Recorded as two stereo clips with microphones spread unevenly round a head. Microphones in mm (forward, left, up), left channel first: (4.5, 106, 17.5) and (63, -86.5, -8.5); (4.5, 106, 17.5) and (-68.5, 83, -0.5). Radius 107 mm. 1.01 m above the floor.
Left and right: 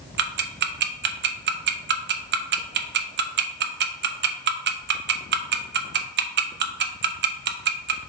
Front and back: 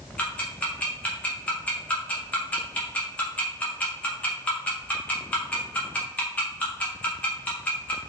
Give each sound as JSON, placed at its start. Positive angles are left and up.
{"t": 0.2, "sound": "ticking", "azimuth_deg": -70, "distance_m": 0.5}